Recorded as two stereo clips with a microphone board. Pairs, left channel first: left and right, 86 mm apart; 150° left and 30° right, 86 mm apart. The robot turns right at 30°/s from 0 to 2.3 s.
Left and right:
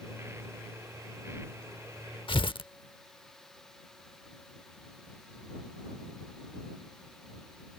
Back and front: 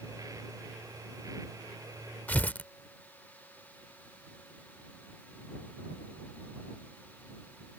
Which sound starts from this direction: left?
Tearing paper, at 2.3 s.